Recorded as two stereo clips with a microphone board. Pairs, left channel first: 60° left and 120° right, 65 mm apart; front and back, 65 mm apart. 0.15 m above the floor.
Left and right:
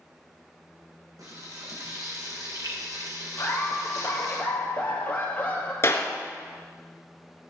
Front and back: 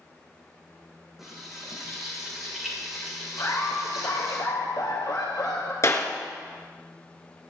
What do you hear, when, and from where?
1.2 s frying: 95° right, 6 m
3.4 s laughter: 5° right, 3 m
5.8 s a clap: 20° left, 1.7 m